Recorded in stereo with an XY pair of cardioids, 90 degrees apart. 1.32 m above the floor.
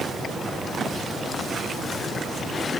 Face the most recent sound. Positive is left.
No sound to turn to.